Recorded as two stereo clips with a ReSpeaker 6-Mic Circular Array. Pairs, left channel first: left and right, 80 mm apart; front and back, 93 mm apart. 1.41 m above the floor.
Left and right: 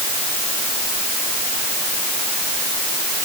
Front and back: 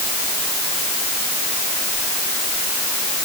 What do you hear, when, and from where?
Only background noise.